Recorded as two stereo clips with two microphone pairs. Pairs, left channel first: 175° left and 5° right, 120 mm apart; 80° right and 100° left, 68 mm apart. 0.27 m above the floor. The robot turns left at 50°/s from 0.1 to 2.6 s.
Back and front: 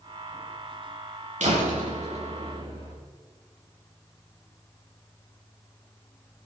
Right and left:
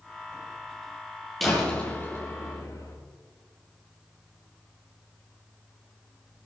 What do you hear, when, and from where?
1.4 s a door slam: 5° left, 6.5 m; by 3.0 s 55° right, 6.5 m